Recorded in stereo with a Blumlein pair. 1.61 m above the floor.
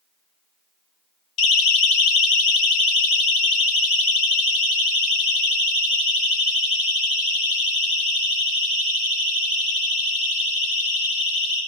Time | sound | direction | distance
1.4 | a siren | 35° left | 2 m